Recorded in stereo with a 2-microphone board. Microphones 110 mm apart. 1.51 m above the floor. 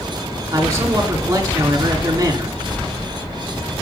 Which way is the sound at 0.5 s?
30° right (ahead or behind).